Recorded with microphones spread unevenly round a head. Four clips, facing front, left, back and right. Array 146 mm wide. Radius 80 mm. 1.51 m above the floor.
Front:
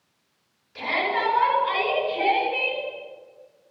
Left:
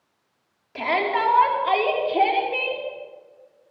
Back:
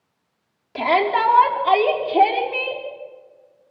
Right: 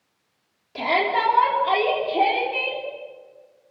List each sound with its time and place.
0.8 s a shout: straight behind, 4.5 m; by 2.8 s 170° left, 5.5 m